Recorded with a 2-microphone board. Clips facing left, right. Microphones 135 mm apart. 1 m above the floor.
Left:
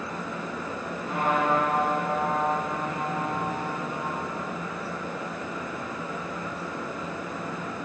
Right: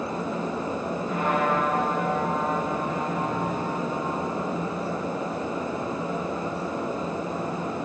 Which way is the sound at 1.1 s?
85° left.